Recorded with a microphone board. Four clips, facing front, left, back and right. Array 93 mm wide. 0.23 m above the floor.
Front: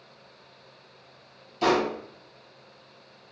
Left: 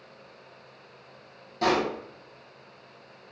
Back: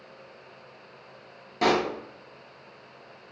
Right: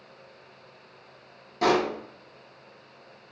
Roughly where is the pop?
Behind.